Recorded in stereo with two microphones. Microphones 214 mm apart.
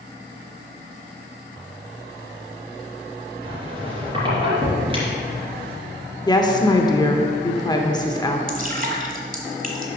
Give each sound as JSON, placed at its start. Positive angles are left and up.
{"t": 3.4, "sound": "a squeak", "side_deg": -25, "distance_m": 2.5}
{"t": 6.3, "sound": "a woman speaking", "side_deg": 20, "distance_m": 0.8}
{"t": 8.5, "sound": "dripping", "side_deg": -45, "distance_m": 1.2}